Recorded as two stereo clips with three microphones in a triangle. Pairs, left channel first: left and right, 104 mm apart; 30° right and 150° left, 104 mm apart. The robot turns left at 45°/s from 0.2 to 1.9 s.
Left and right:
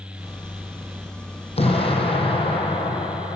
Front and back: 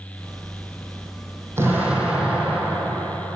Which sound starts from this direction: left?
An explosion, at 1.6 s.